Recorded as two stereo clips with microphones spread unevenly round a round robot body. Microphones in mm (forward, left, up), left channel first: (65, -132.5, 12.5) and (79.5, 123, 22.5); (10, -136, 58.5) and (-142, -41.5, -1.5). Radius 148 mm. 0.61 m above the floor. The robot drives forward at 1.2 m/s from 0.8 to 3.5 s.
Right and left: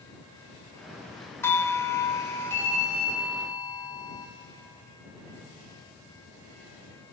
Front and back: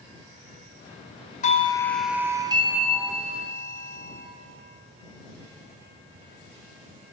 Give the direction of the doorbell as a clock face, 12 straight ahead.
1 o'clock.